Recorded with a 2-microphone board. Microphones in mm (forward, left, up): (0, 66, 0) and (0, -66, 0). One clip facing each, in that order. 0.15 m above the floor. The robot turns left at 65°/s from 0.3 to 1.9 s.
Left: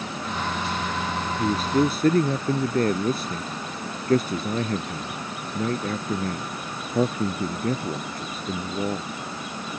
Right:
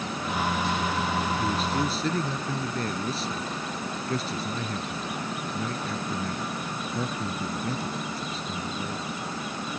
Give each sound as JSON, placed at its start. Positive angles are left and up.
{"t": 1.4, "sound": "a man speaking", "azimuth_deg": 140}